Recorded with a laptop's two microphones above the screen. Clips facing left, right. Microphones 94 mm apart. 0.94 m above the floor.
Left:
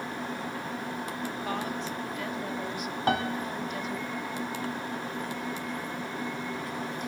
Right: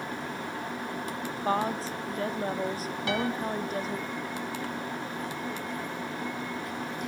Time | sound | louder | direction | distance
1.4 | a woman speaking | right 8 dB | 35° right (ahead or behind) | 1.9 m
3.1 | a piano | left 2 dB | 45° left (ahead or behind) | 1.5 m